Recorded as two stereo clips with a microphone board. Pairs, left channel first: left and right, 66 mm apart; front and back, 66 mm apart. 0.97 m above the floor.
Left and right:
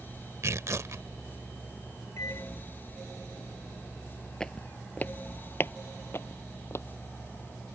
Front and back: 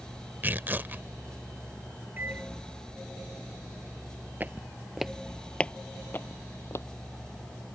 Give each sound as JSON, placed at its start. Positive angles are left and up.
{"t": 0.4, "sound": "tearing paper", "azimuth_deg": -120}
{"t": 2.2, "sound": "a microwave", "azimuth_deg": 125}
{"t": 4.4, "sound": "footsteps", "azimuth_deg": 160}